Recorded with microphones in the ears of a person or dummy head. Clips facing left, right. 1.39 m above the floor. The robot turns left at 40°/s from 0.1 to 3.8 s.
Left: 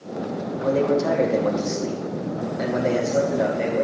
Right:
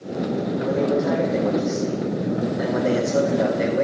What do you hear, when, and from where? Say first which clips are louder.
0.6 s a man speaking: left 2 dB; 120° left, 3 m; by 3.9 s 5° right, 3 m